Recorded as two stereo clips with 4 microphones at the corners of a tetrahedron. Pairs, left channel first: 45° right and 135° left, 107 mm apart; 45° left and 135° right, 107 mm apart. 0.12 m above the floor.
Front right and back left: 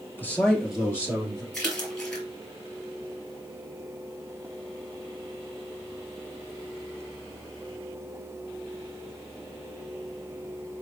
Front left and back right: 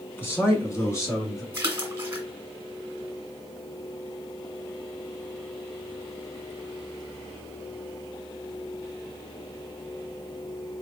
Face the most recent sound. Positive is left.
turn(degrees=-110)